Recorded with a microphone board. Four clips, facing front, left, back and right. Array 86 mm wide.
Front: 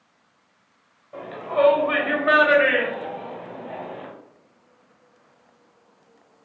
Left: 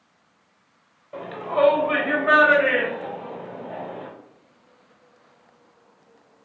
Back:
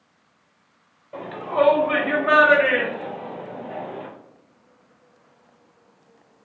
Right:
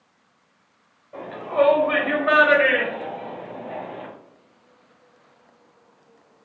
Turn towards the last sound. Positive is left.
turn(degrees=-45)